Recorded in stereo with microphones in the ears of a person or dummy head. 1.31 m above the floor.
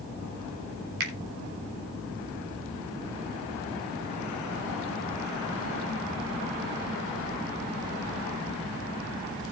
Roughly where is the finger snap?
Right.